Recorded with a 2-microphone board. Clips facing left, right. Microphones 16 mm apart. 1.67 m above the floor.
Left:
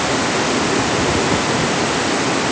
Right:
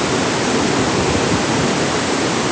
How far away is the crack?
I don't hear a crack.